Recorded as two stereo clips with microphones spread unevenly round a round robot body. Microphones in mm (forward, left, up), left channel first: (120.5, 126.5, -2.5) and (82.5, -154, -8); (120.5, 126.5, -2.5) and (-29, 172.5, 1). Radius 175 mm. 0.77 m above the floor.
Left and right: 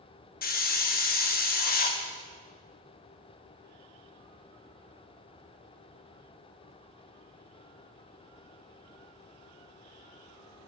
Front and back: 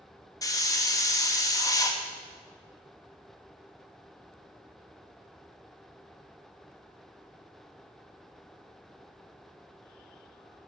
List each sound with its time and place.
0.4 s a hiss: 40° left, 1.1 m